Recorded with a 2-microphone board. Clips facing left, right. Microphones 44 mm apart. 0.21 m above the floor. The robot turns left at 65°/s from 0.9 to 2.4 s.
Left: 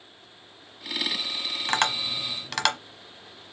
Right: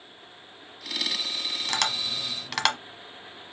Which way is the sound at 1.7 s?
30° left (ahead or behind).